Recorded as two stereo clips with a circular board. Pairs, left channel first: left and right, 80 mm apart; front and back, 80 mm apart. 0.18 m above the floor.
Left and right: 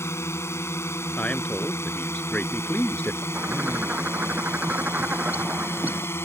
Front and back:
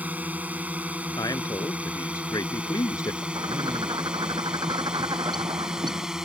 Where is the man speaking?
20° left.